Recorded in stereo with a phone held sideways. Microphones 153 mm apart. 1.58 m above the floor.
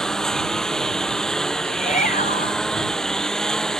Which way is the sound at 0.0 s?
5° left (ahead or behind).